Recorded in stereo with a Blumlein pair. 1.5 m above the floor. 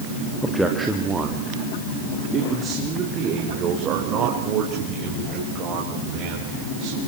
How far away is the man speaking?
About 2.5 m.